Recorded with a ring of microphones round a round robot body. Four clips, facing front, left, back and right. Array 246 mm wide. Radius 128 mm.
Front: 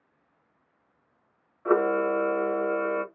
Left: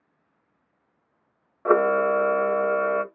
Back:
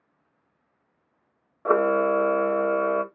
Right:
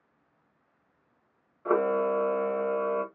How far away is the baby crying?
I don't hear a baby crying.